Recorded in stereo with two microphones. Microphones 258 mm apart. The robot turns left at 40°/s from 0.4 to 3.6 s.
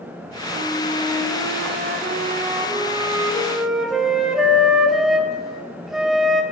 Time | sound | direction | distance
0.5 | a flute | 55° right | 0.5 m